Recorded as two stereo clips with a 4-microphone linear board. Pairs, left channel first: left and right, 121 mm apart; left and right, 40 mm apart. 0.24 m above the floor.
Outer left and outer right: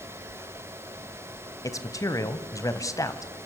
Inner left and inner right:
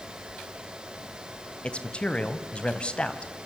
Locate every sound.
1.6 s a man speaking: 25° left (ahead or behind), 1.7 m